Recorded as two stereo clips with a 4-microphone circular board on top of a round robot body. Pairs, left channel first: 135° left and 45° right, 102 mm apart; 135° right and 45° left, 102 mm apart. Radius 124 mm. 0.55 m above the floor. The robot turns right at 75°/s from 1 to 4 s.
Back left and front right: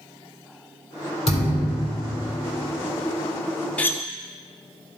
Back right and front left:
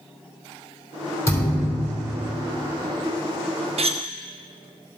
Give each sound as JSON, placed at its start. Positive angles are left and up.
{"t": 1.3, "sound": "a thud", "azimuth_deg": 160, "distance_m": 3.0}
{"t": 3.8, "sound": "cutlery clinking", "azimuth_deg": 55, "distance_m": 1.0}